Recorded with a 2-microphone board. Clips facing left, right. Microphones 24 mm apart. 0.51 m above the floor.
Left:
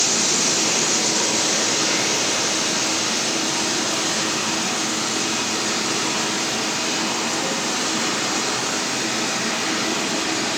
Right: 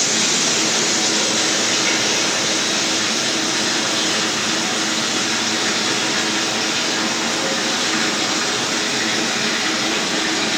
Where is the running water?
65° right (ahead or behind), 4 m.